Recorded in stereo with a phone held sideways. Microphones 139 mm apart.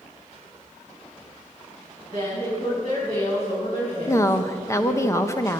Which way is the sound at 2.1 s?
40° left (ahead or behind).